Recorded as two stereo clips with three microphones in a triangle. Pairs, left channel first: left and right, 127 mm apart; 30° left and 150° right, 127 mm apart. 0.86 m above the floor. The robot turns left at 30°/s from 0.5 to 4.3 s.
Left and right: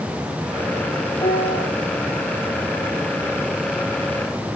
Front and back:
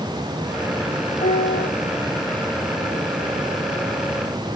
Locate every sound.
1.2 s a piano: 50° left, 8.5 m; by 1.7 s 35° left, 8.5 m